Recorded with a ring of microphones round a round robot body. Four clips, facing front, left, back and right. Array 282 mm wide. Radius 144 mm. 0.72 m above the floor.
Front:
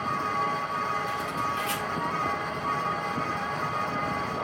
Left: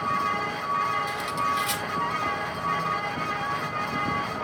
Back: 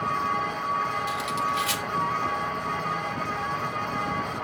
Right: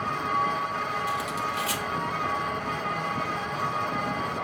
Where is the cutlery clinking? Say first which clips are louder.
Left 2 dB, back 2 dB; 175° left, 1.0 m.